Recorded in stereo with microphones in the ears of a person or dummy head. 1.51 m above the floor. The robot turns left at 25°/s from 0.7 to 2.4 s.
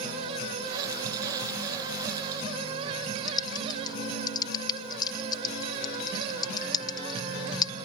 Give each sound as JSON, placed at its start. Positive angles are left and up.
{"t": 3.3, "sound": "typing on a keyboard", "side_deg": 20}